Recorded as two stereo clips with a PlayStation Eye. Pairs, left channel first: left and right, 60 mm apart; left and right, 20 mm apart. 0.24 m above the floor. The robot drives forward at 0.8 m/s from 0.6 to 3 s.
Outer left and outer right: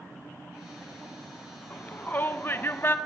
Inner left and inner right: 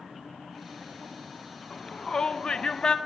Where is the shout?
25° left (ahead or behind), 1.8 m; by 3.0 s 40° left (ahead or behind), 1.3 m.